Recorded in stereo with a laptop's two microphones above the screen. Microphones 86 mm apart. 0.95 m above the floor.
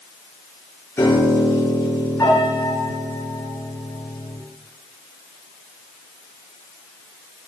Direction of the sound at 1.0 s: 30° left (ahead or behind).